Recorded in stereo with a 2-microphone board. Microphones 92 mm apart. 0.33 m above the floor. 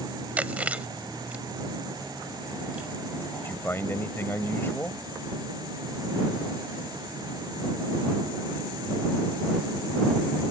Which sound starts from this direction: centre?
Chewing, at 0.4 s.